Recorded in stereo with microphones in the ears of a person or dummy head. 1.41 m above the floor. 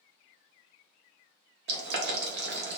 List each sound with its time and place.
1.7 s boiling: 55° right (ahead or behind), 0.7 m